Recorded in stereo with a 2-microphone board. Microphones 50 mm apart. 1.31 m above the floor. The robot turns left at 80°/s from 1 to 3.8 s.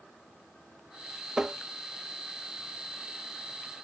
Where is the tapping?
15° right (ahead or behind); by 1.6 s 10° right (ahead or behind).